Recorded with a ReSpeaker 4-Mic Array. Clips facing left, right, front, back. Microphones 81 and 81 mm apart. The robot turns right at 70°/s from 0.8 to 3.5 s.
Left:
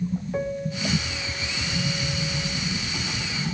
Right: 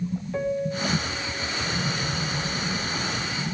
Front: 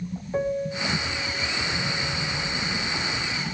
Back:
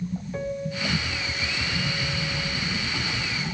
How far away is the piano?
About 1.2 m.